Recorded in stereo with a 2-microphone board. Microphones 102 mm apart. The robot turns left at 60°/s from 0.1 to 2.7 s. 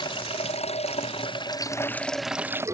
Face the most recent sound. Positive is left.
turn(degrees=-30)